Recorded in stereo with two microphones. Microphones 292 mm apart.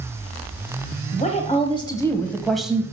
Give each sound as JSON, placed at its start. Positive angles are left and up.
{"t": 1.1, "sound": "a woman speaking", "side_deg": 25, "distance_m": 1.0}